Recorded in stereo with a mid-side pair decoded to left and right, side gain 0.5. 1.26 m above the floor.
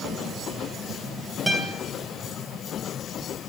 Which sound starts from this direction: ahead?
A guitar, at 1.5 s.